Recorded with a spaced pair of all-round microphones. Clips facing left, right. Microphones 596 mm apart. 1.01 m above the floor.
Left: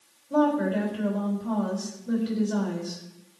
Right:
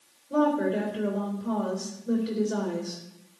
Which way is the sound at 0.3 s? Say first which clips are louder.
Left 1 dB; 20° left (ahead or behind).